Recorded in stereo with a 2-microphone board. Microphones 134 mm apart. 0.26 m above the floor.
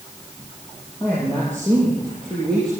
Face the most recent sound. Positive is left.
turn(degrees=5)  # may be behind; listen again after turning